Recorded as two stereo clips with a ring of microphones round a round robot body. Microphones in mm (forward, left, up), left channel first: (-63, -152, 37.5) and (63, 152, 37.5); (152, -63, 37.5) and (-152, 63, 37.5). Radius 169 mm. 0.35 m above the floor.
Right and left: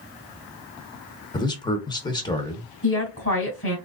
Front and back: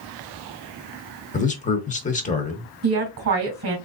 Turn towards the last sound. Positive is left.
turn(degrees=-160)